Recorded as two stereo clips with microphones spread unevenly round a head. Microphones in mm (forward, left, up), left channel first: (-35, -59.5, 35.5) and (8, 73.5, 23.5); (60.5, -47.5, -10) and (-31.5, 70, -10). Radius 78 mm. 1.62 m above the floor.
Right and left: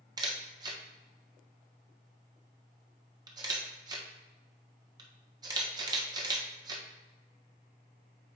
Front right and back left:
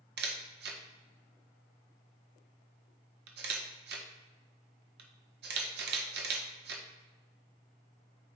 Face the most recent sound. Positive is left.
turn(degrees=135)